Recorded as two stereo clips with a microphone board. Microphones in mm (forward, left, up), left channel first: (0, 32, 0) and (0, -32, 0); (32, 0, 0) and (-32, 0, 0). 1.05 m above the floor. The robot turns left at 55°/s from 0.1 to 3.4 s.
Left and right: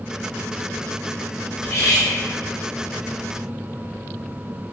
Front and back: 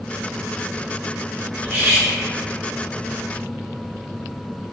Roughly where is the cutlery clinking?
Behind left.